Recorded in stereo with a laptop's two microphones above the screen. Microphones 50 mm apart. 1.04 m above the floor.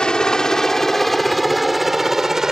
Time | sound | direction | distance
0.0 | a helicopter | 15° left (ahead or behind) | ?